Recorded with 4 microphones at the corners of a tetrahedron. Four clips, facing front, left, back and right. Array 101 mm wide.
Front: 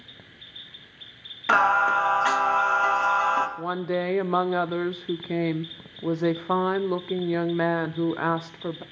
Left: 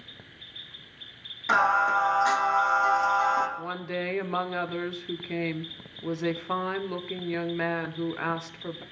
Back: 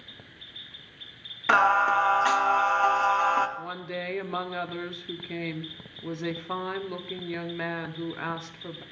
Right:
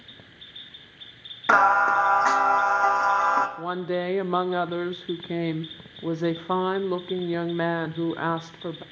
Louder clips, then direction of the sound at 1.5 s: Right 4 dB, front 1 dB; 90° right.